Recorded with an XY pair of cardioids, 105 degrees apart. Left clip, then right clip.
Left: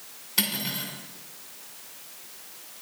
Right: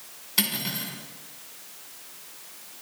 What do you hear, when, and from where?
0.4 s cutlery clinking: straight ahead, 2 m